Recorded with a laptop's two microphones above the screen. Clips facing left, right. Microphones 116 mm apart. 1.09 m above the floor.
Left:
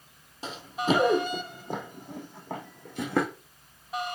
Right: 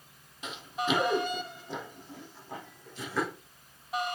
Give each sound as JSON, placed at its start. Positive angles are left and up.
{"t": 0.4, "sound": "running footsteps", "side_deg": 35, "distance_m": 1.7}